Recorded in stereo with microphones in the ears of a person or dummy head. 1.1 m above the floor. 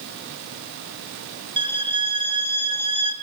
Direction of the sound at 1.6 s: 25° right (ahead or behind).